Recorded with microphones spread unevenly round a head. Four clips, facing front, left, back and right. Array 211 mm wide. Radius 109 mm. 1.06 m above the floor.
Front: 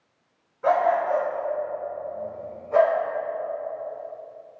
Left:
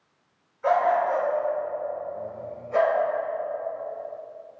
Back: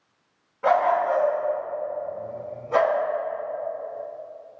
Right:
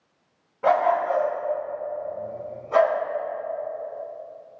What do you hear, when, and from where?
0.6 s a dog barking: 100° right, 3 m; by 3.0 s 160° right, 3 m